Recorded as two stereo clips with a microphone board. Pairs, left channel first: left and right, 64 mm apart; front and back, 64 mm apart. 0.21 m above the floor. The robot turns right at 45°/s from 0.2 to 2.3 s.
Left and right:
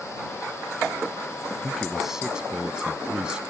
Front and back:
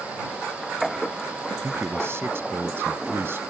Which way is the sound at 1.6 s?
170° left.